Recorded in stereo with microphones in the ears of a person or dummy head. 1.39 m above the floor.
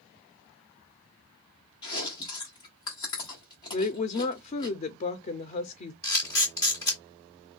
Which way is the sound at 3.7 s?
35° left (ahead or behind).